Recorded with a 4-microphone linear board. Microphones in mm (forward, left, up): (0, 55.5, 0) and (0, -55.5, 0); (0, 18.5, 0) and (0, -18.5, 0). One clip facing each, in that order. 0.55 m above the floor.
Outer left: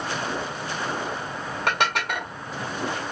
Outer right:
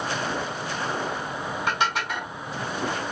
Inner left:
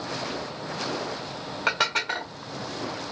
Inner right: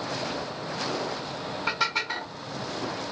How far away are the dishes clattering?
About 1.3 m.